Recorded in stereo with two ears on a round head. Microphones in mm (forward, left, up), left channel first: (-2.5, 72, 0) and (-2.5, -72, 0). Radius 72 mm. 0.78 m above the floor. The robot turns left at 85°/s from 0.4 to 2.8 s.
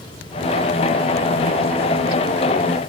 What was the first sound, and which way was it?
Only background noise.